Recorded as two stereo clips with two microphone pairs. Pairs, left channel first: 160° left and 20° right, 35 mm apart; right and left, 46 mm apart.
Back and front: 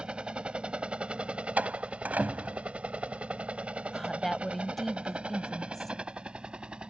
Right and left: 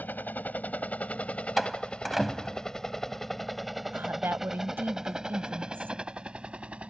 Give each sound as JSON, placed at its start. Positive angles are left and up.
{"t": 0.0, "sound": "a helicopter", "azimuth_deg": -70}
{"t": 1.6, "sound": "a door slam", "azimuth_deg": 5}
{"t": 3.9, "sound": "a woman speaking", "azimuth_deg": 75}